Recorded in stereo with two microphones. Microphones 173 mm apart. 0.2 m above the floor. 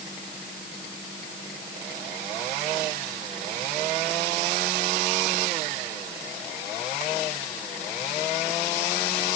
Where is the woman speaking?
No woman speaking in this recording.